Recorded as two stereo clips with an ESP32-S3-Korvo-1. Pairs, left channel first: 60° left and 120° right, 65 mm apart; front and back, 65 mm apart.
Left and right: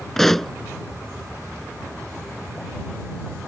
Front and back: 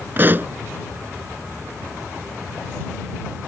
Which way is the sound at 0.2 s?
145° left.